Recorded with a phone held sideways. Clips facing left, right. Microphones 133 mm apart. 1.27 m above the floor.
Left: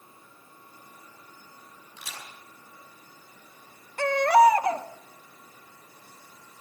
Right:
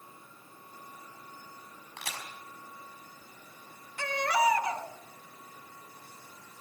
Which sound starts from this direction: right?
A crack, at 2.0 s.